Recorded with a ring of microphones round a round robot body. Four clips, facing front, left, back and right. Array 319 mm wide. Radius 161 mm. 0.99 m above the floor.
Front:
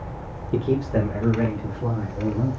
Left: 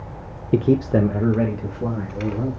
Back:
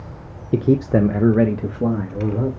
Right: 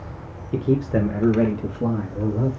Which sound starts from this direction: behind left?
A man speaking, at 0.5 s.